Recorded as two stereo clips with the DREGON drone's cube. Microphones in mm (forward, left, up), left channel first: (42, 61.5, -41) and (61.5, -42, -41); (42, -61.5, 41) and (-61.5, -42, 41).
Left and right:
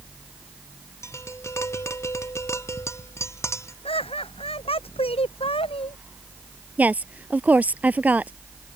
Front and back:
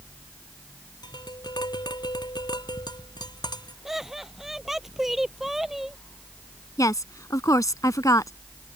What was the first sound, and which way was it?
Tapping, 35° left.